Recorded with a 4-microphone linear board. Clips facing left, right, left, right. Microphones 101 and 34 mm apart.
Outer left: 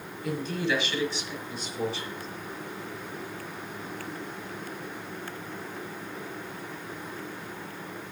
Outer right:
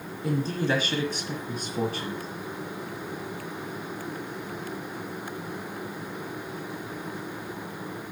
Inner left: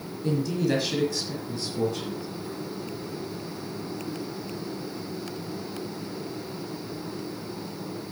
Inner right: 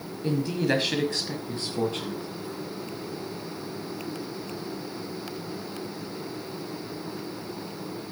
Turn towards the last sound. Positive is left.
turn(degrees=-50)  # may be behind; listen again after turning